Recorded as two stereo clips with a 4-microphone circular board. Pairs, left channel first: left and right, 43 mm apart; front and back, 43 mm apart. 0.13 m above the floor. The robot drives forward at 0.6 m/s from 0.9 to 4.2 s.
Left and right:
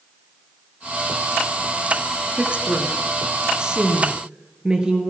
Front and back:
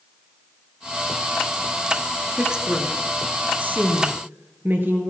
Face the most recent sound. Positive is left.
turn(degrees=-155)